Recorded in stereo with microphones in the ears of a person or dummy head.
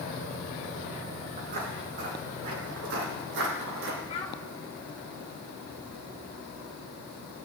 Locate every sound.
1.4 s footsteps: 50° right (ahead or behind), 3.5 m; by 4.0 s 65° right (ahead or behind), 4.5 m
4.1 s a child speaking: 30° left (ahead or behind), 4 m